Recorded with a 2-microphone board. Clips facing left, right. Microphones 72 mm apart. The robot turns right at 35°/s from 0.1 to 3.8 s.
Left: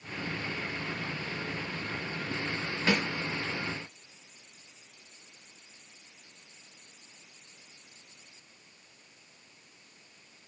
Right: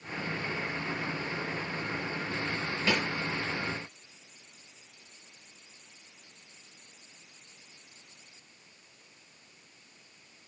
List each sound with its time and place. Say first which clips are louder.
2.9 s a snare drum: left 1 dB; 35° left (ahead or behind), 2.5 m; by 3.0 s 40° left (ahead or behind), 2.5 m